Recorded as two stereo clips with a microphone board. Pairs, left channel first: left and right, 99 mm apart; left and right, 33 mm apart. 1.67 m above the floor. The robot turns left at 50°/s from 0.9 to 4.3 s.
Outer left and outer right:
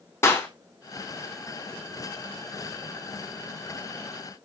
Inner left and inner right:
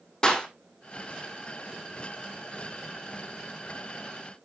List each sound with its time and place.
0.2 s a clap: 25° left (ahead or behind), 3.5 m